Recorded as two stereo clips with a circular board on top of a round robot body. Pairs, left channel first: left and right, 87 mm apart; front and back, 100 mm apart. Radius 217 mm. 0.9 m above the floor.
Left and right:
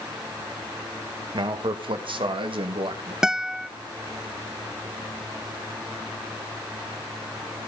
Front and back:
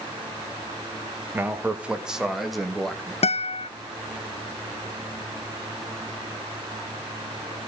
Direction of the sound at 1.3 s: 110° right.